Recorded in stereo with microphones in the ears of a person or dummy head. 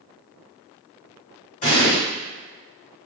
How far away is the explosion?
About 1.8 m.